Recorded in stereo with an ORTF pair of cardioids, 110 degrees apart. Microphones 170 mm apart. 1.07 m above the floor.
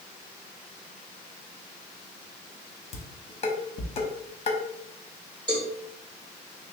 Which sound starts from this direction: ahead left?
Dishes clattering, at 2.9 s.